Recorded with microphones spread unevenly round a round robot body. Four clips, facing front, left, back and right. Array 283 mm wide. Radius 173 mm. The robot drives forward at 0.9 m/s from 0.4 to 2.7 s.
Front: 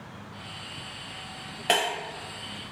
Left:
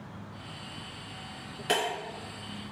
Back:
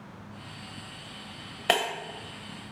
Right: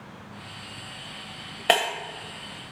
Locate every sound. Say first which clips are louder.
1.7 s breaking glass: right 6 dB, front 1 dB; 130° right, 0.6 m; by 1.9 s 150° right, 0.7 m